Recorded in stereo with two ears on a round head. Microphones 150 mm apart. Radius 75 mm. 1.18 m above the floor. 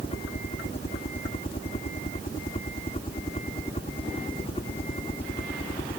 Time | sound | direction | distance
0.0 | a helicopter | 35° left (ahead or behind) | ?